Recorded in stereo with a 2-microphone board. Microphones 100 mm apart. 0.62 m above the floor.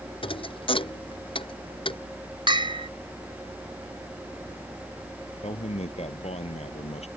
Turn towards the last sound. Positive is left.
turn(degrees=85)